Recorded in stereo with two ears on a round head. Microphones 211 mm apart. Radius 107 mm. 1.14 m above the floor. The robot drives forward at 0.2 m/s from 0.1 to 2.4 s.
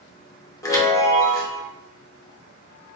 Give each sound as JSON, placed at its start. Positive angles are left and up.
{"t": 0.6, "sound": "a chime", "side_deg": 15, "distance_m": 0.8}